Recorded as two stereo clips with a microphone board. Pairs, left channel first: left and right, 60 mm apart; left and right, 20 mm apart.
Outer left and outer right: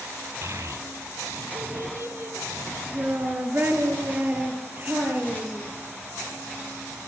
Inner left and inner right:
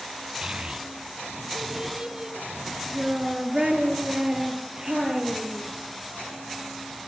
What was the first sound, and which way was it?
A child speaking, 55° right (ahead or behind).